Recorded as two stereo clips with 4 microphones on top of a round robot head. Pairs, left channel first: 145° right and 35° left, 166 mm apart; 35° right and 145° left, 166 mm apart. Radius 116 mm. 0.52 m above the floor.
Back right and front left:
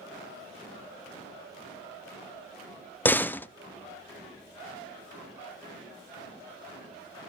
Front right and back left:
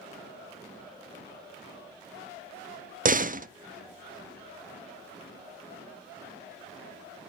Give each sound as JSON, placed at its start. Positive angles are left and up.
{"t": 3.0, "sound": "a door slam", "azimuth_deg": 140, "distance_m": 0.5}